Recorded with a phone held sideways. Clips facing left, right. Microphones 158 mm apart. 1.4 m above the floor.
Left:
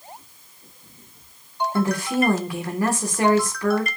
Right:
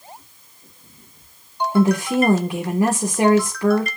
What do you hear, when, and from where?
1.7 s a woman speaking: 20° right (ahead or behind), 1.5 m